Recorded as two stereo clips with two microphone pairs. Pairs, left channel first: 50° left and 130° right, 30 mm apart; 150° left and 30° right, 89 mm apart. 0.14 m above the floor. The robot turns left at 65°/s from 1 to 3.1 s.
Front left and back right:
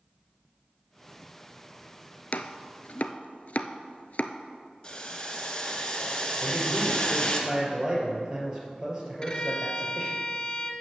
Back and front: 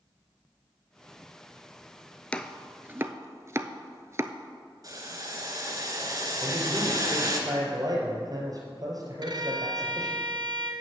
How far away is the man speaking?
About 3 m.